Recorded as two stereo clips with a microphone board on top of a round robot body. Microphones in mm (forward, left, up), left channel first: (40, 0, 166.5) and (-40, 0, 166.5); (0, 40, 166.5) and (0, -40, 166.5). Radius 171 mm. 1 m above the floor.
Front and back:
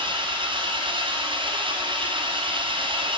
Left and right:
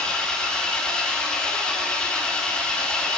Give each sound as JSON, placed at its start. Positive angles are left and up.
{"t": 0.0, "sound": "an engine running", "azimuth_deg": 170, "distance_m": 2.5}